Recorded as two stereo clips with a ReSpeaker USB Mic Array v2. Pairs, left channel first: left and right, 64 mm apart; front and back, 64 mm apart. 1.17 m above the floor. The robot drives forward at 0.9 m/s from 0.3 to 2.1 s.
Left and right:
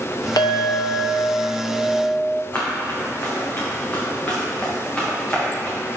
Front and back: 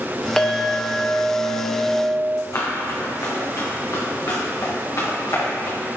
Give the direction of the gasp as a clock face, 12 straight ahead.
I don't hear a gasp.